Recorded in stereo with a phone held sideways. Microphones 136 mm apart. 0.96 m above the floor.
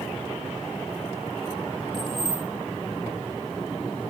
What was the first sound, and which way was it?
Keys jangling, 40° right (ahead or behind).